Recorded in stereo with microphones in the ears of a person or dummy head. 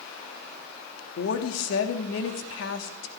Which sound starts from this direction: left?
A woman speaking, at 1.2 s.